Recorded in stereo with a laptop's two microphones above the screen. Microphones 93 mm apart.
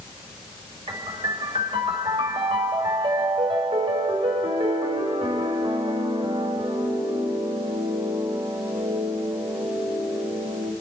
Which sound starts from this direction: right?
A piano, at 0.9 s.